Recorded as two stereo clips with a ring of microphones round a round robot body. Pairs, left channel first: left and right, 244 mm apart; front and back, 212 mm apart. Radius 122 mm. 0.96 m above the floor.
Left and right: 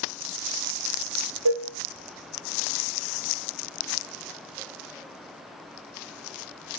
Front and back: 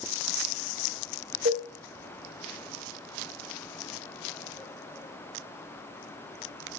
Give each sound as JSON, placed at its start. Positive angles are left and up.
{"t": 1.4, "sound": "dishes clattering", "azimuth_deg": -115, "distance_m": 1.4}